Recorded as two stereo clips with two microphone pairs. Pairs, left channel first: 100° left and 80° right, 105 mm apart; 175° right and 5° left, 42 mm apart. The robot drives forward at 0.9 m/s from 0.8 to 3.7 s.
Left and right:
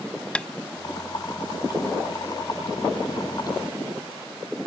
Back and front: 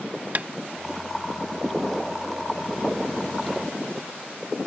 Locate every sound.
0.3 s tapping: 30° left